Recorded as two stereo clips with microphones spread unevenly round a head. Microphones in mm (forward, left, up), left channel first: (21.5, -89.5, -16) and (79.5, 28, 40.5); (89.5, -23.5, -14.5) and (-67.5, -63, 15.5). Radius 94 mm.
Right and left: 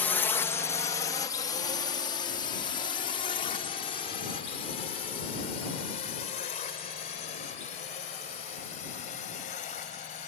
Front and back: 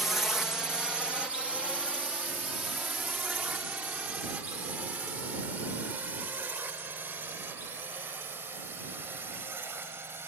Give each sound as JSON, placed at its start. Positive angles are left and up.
{"t": 0.0, "sound": "a drone", "azimuth_deg": -65}